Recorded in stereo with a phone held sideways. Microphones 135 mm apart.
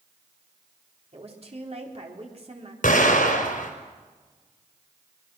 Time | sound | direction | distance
1.1 | a woman speaking | 50° right (ahead or behind) | 4 m
2.8 | an explosion | 80° left | 4.5 m